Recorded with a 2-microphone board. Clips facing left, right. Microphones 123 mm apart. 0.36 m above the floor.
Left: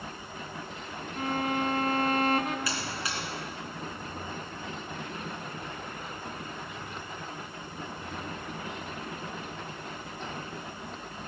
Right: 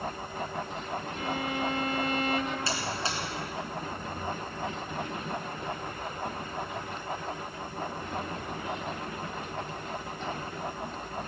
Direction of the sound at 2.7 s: 30° right (ahead or behind).